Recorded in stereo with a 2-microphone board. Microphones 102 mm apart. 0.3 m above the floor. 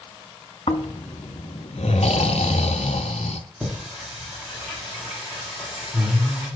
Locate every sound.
0.7 s snoring: 85° left, 0.7 m
3.6 s singing: 10° right (ahead or behind), 4.5 m